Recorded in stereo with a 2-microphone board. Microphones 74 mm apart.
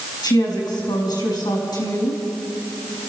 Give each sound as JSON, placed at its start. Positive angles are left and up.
{"t": 0.2, "sound": "a woman speaking", "side_deg": 75, "distance_m": 6.0}